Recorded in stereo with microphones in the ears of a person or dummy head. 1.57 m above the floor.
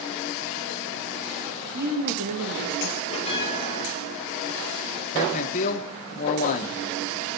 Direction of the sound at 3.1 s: 30° left (ahead or behind).